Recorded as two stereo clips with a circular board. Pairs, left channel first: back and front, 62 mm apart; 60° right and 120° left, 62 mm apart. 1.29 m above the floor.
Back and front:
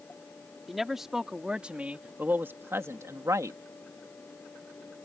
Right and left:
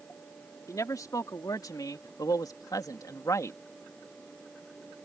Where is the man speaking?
85° right; by 3.6 s 25° right.